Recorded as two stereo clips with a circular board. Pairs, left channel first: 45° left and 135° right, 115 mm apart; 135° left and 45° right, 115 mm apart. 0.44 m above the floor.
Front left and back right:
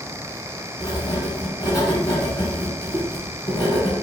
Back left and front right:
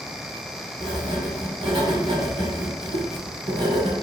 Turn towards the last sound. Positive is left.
turn(degrees=-10)